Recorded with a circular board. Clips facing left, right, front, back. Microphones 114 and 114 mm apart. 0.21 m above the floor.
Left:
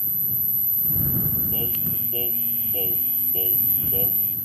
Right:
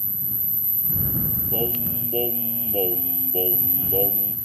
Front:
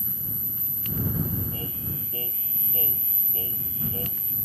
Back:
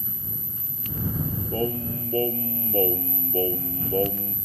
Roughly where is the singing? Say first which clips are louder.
Right 6 dB, back 10 dB; behind right.